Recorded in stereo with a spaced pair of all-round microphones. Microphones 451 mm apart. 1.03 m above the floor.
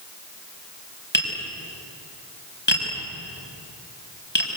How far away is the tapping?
About 6 m.